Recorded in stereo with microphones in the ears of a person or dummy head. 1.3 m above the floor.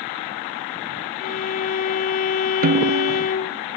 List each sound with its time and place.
1.2 s a violin: 45° left (ahead or behind)
2.6 s a snare drum: 45° right (ahead or behind)